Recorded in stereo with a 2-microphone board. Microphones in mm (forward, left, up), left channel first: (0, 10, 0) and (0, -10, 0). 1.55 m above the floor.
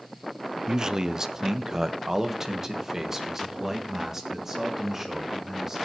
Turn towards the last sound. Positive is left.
turn(degrees=-20)  # may be behind; listen again after turning